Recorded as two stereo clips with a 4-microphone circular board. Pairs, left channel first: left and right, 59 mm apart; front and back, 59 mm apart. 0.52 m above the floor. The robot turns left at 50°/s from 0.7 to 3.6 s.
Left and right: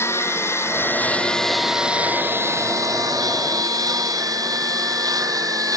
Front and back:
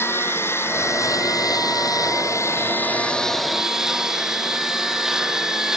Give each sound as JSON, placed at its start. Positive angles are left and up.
{"t": 0.0, "sound": "a lawn mower", "azimuth_deg": 45}